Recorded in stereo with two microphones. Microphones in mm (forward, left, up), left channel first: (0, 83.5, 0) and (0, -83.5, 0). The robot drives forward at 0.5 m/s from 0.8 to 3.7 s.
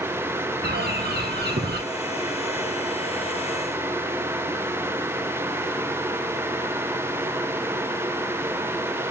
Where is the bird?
75° right (ahead or behind), 1.4 m; by 1.8 s 85° right, 1.4 m.